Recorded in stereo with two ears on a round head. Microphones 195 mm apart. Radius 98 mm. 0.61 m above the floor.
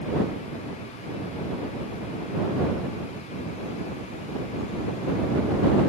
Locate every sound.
Only background noise.